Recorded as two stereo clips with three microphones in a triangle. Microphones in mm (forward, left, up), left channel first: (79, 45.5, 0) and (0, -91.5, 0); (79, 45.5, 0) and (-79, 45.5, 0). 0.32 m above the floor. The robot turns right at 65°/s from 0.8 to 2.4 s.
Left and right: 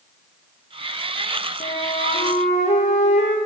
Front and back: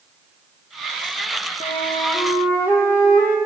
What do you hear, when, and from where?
1.6 s a flute: 50° left, 3 m; by 3.4 s 105° left, 3 m